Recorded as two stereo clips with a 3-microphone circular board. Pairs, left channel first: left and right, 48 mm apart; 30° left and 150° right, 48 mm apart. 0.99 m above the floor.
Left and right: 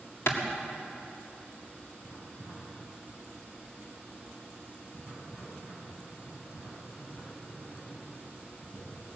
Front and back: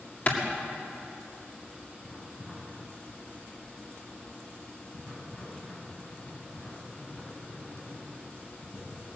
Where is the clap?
80° left, 2.0 m.